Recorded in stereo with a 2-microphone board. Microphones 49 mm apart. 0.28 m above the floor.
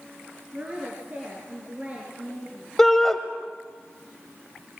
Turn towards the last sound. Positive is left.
turn(degrees=10)  # may be behind; listen again after turning